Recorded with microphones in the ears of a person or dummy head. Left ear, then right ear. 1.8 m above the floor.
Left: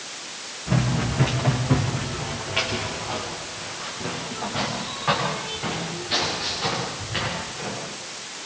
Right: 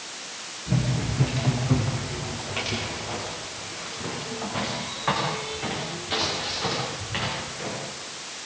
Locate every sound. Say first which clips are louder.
0.7 s running footsteps: left 4 dB; 35° left (ahead or behind), 6 m; by 7.8 s 25° right (ahead or behind), 13 m